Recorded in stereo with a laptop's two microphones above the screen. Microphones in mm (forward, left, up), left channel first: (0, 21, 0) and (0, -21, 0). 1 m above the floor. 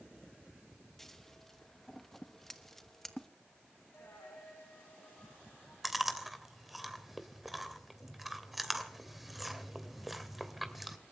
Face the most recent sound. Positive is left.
turn(degrees=-5)  # may be behind; listen again after turning